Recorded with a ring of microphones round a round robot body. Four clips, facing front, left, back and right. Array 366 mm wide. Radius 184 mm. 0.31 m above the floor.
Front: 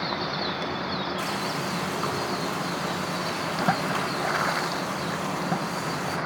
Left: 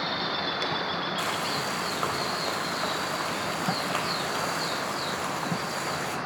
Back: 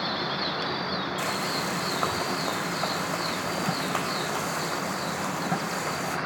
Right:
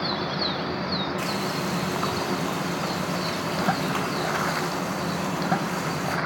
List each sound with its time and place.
1.2 s frying: 160° left, 1.3 m